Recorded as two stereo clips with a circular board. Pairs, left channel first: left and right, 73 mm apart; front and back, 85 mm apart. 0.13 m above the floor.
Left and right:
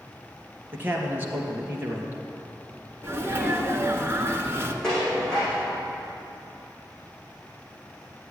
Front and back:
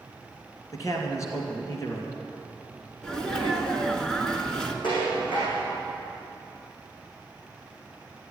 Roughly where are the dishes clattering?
Ahead.